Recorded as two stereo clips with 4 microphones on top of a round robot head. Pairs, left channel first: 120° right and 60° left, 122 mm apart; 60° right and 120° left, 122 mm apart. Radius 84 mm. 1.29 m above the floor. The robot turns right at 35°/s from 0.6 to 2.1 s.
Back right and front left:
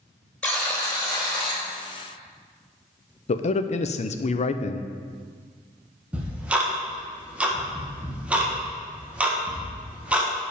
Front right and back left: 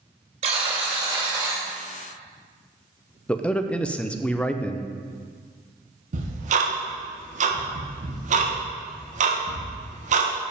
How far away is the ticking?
About 1.6 m.